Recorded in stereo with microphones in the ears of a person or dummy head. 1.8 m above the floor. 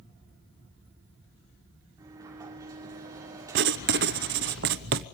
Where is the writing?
60° right (ahead or behind), 0.8 m.